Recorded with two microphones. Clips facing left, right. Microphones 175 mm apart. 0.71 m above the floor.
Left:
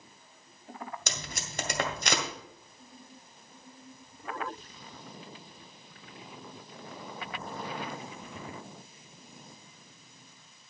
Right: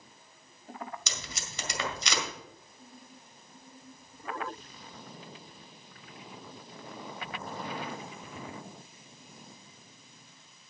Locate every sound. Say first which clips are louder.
1.1 s tape being pulled: left 3 dB; 50° left (ahead or behind), 1.8 m